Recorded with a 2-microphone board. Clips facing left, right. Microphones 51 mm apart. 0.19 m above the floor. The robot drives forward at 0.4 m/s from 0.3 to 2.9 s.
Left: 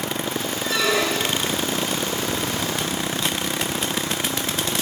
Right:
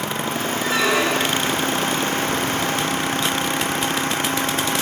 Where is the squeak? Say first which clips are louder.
Right 2 dB; 25° right (ahead or behind), 1.7 m; by 1.6 s 30° right (ahead or behind), 1.5 m.